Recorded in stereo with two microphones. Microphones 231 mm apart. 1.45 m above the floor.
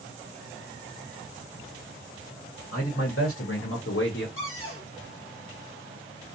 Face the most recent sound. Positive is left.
turn(degrees=65)  # may be behind; listen again after turning